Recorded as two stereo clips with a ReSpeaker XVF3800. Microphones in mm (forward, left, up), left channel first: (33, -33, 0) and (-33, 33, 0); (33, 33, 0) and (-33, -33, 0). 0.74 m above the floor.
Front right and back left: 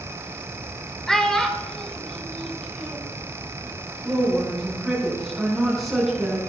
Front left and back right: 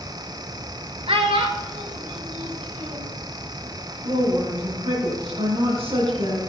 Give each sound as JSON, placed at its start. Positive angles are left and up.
{"t": 1.1, "sound": "a child speaking", "azimuth_deg": -130, "distance_m": 1.3}
{"t": 4.0, "sound": "a woman speaking", "azimuth_deg": -135, "distance_m": 6.5}